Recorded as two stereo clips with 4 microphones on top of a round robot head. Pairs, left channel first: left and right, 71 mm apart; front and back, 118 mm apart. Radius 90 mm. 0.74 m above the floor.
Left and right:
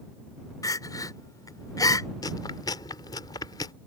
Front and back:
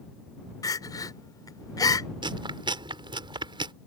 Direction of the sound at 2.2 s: 130° left.